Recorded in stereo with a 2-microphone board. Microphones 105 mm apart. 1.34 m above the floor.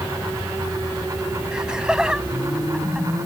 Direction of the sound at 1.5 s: 5° right (ahead or behind).